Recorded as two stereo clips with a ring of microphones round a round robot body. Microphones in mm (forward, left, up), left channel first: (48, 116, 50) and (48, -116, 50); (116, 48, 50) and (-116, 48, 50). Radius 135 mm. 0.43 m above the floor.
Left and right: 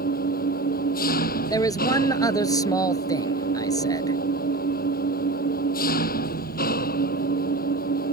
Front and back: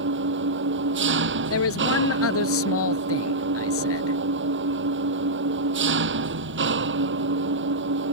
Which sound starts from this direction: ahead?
A man speaking, at 1.5 s.